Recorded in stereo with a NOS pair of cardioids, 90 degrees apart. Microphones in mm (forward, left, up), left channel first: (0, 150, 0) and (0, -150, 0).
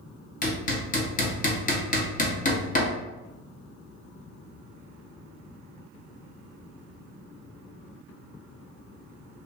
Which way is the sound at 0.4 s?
30° left.